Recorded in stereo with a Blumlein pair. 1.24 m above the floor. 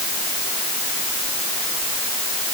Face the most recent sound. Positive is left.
No sound to turn to.